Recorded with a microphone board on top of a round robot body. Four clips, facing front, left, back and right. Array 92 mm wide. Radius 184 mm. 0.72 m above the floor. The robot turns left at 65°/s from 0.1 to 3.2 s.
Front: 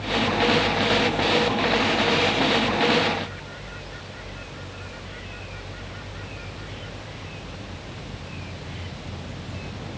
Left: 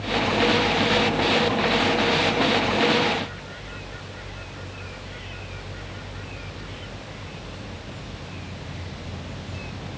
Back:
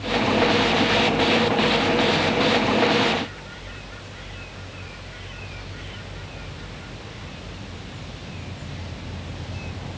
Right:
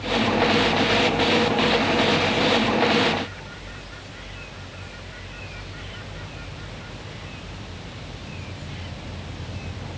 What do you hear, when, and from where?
Only background noise.